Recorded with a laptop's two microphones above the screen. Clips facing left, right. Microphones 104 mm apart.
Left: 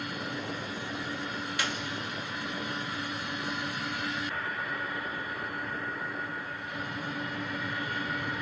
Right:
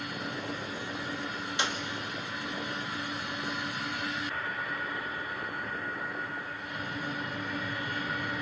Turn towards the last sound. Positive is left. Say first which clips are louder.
# right 2 dB
turn(degrees=-25)  # may be behind; listen again after turning